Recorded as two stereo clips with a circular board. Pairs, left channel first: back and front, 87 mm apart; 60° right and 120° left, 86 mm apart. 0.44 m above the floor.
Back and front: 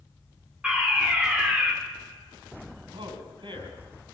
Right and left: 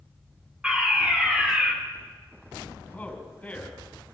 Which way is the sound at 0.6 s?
65° left.